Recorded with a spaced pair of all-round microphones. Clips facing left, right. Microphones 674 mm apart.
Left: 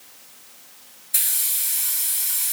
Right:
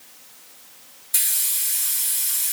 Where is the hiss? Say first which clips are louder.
Left 3 dB; 45° right (ahead or behind), 4 m.